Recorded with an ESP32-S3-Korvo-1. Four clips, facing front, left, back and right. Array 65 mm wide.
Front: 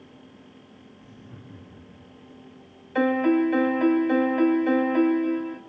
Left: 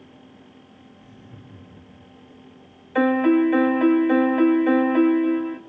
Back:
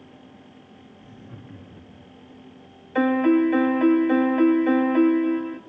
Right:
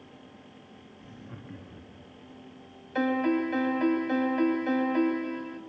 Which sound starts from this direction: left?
A piano, at 3.0 s.